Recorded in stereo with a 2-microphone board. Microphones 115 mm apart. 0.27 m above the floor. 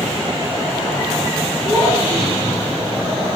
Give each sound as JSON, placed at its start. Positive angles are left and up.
{"t": 1.6, "sound": "a child speaking", "side_deg": 20, "distance_m": 6.0}